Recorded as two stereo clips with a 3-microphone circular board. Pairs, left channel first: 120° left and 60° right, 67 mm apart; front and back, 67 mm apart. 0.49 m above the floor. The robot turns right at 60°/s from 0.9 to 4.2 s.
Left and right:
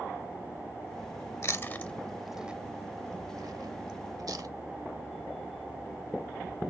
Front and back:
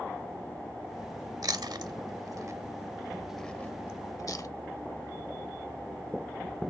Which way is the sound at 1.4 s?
160° left.